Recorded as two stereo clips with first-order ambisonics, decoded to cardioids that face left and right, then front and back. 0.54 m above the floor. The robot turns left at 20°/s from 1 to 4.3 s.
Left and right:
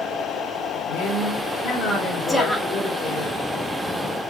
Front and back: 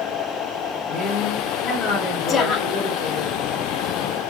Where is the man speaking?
55° left, 2 m; by 3.3 s 5° left, 2 m.